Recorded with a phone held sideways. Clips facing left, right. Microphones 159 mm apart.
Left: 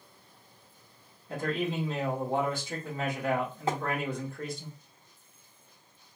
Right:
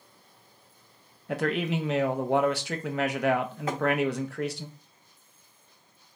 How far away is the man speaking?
About 0.6 m.